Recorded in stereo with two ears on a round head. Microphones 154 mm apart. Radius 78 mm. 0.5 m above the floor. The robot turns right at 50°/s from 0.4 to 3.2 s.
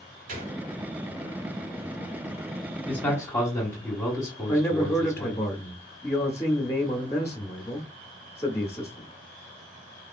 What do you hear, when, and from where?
0.3 s a gunshot: 50° right (ahead or behind), 1.4 m; by 0.6 s 55° right (ahead or behind), 1.4 m
2.9 s a man speaking: 10° left (ahead or behind), 1.2 m; by 5.4 s 15° left (ahead or behind), 1.2 m
4.5 s a man speaking: 15° left (ahead or behind), 0.7 m